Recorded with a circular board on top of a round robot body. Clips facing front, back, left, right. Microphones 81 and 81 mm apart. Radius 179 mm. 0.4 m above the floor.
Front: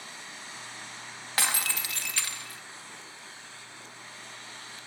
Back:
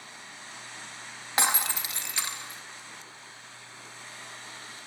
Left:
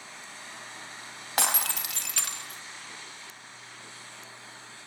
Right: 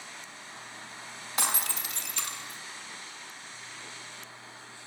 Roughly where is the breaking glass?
Left.